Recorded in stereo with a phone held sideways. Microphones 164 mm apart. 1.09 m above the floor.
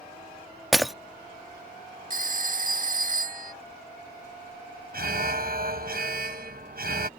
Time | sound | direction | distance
0.7 | breaking glass | centre (ahead or behind) | ?
2.1 | a phone ringing | 55° right (ahead or behind) | ?
4.9 | an alarm | 65° right (ahead or behind) | ?